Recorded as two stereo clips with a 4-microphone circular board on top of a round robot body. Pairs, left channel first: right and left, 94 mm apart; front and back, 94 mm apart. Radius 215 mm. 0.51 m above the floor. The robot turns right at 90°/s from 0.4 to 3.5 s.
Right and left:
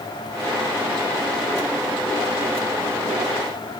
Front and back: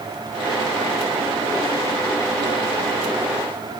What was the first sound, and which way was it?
Only background noise.